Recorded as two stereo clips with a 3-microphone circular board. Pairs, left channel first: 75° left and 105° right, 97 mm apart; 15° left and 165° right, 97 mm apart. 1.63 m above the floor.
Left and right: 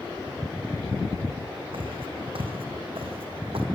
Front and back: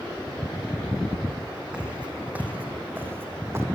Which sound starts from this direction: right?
Footsteps, at 1.7 s.